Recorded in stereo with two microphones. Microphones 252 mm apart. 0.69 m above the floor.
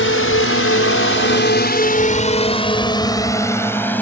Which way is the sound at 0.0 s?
55° left (ahead or behind).